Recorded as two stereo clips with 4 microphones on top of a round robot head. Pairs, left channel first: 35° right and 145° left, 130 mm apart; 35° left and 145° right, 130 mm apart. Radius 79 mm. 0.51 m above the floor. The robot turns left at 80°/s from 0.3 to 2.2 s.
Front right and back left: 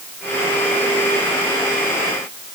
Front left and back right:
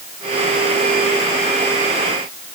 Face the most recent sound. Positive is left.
No sound to turn to.